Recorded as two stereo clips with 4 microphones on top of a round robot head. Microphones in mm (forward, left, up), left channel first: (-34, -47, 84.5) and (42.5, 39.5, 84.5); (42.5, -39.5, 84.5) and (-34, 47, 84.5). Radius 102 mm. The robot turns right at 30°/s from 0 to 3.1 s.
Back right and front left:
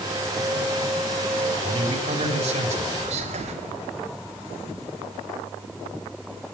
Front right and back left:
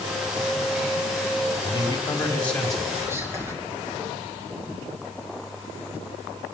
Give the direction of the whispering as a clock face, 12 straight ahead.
10 o'clock.